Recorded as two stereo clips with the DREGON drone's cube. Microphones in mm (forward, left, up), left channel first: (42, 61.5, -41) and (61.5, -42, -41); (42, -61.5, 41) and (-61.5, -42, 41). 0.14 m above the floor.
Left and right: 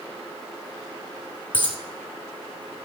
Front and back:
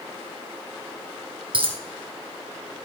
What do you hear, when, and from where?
1.5 s a dropped coin: 140° left, 1.8 m